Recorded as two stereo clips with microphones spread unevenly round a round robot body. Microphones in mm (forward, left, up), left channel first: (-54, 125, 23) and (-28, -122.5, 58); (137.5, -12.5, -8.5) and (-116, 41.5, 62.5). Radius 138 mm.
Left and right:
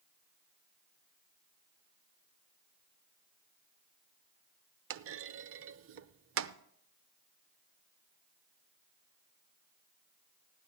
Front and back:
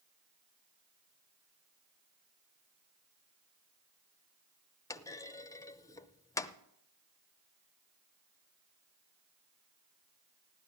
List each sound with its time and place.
4.9 s a clunk: 70° right, 0.6 m